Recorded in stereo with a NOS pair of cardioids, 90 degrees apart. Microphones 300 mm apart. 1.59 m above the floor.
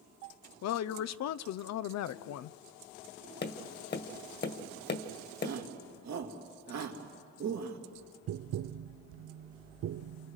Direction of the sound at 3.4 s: 35° left.